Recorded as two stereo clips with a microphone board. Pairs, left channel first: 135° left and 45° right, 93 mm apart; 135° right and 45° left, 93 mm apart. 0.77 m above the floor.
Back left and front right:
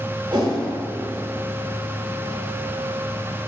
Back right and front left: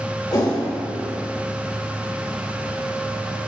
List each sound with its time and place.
0.3 s a whoosh: 90° right, 1.5 m